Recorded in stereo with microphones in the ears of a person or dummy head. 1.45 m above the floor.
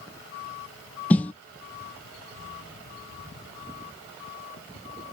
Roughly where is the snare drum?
Centre.